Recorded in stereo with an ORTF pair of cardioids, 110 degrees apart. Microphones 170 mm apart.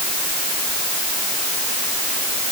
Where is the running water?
I don't hear running water.